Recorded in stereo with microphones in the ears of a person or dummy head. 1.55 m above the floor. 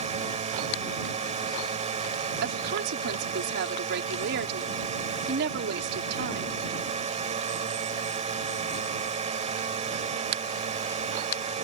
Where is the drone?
35° right (ahead or behind).